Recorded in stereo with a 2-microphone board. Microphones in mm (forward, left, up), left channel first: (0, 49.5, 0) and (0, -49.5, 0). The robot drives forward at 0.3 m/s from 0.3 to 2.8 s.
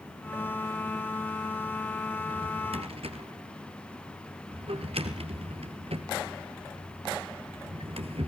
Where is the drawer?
85° right, 2.5 m.